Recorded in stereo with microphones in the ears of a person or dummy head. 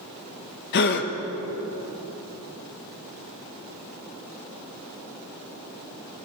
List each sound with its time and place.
0.7 s a gasp: 60° left (ahead or behind), 1.2 m